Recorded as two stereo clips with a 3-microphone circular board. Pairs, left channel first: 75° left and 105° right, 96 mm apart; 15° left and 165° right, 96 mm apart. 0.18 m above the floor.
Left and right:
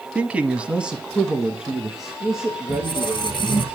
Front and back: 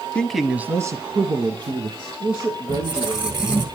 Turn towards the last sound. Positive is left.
turn(degrees=115)